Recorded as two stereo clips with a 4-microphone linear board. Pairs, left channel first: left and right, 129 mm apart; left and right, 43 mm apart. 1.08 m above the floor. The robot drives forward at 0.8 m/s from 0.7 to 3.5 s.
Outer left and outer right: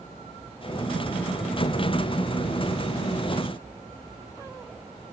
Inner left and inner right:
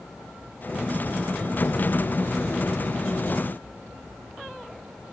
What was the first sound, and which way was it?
Only background noise.